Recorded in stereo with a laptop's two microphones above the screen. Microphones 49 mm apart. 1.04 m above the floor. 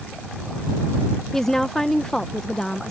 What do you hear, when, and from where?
1.3 s a woman speaking: 10° left (ahead or behind)